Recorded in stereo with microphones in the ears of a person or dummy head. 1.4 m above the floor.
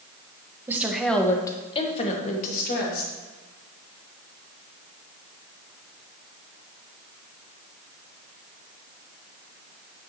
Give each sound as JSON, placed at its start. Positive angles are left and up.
{"t": 0.7, "sound": "a woman speaking", "side_deg": -15, "distance_m": 1.1}